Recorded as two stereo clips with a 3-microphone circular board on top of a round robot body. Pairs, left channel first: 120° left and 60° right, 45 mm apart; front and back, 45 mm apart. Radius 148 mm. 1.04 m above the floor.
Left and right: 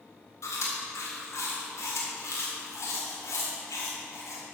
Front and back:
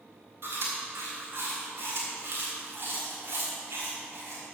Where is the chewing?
140° left, 1.6 m.